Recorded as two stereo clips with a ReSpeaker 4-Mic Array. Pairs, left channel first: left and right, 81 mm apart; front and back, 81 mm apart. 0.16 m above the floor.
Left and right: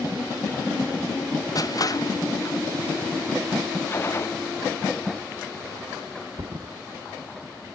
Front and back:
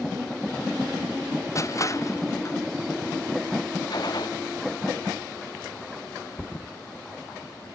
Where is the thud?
90° right.